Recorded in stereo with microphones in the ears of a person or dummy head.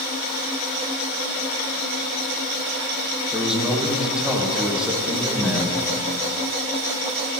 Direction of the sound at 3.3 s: 5° right (ahead or behind).